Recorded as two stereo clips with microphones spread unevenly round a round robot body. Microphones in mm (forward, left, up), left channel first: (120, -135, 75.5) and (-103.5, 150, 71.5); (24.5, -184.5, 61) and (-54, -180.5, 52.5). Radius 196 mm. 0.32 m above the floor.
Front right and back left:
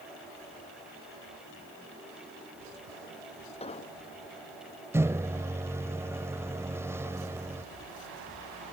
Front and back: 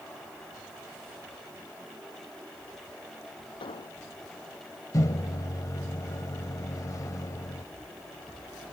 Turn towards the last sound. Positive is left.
turn(degrees=45)